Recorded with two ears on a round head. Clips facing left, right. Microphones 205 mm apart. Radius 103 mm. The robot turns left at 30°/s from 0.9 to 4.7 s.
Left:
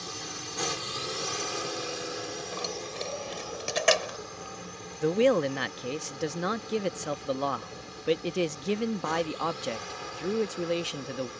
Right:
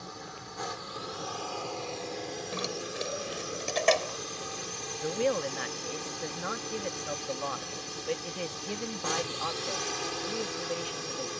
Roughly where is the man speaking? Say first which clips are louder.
Left 6 dB; left.